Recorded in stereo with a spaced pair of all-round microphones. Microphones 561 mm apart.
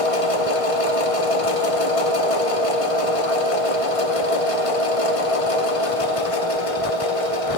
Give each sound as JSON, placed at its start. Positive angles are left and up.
{"t": 0.0, "sound": "a machine running", "side_deg": 70, "distance_m": 0.9}